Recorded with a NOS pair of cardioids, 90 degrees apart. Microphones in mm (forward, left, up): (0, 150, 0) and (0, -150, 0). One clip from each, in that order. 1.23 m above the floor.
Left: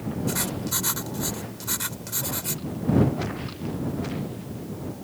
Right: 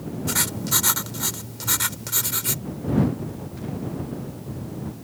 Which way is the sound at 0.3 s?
45° right.